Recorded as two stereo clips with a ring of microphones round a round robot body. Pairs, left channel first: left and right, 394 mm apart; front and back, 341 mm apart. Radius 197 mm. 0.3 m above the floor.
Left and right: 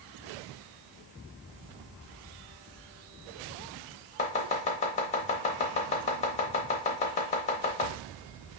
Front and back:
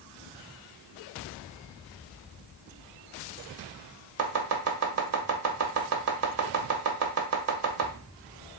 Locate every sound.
4.2 s chopping: 155° left, 0.6 m